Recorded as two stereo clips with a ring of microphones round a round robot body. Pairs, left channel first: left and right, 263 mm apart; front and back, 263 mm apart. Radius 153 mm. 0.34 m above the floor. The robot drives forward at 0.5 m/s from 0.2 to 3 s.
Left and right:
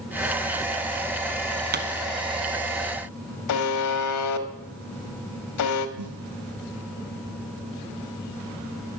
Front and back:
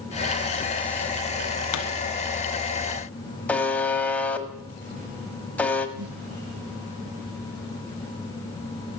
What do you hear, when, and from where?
1.7 s a pop: 35° right, 1.4 m
3.5 s a buzzer: 85° left, 1.4 m
6.0 s a snare drum: 135° right, 5 m